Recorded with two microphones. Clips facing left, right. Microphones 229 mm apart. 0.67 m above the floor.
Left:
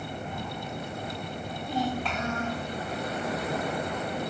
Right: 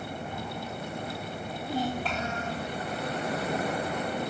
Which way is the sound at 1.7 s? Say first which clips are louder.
Left 1 dB; 40° right (ahead or behind).